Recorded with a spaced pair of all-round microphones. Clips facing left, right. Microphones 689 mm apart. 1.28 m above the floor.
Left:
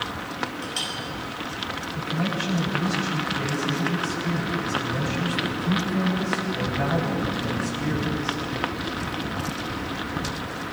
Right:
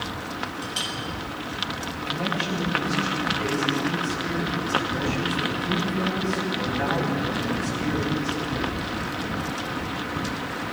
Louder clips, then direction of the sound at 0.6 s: Even; 60° right (ahead or behind).